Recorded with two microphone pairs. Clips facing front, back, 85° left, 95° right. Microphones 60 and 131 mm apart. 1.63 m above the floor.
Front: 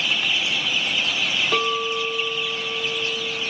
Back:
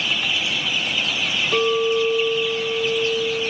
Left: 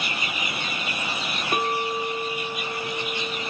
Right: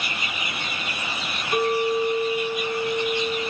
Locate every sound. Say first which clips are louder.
1.5 s a clink: back 8 dB, right 5 dB; 55° left, 2.0 m